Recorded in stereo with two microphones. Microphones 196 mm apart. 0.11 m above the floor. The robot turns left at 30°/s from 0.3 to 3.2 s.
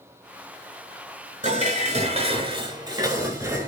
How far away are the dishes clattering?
About 0.9 m.